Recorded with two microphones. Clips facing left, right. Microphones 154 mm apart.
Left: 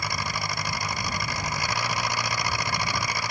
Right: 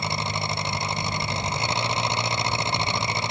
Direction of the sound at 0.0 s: 25° right (ahead or behind).